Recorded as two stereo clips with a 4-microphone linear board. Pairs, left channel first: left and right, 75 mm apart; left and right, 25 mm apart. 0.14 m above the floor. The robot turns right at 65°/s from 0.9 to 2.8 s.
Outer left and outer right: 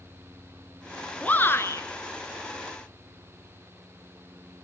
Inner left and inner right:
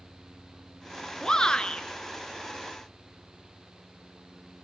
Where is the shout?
20° left, 1.6 m; by 1.9 s 65° left, 1.6 m.